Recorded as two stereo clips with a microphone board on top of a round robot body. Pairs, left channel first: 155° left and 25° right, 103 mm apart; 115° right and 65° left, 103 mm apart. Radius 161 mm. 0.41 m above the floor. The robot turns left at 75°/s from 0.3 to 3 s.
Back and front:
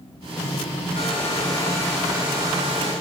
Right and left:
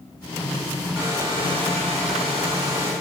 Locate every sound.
0.9 s a hair dryer: 150° left, 4 m; by 2.9 s 5° left, 4 m